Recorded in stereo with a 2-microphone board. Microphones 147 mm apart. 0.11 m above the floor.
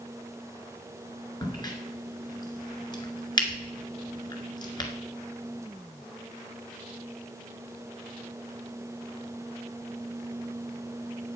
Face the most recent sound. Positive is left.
turn(degrees=30)  # may be behind; listen again after turning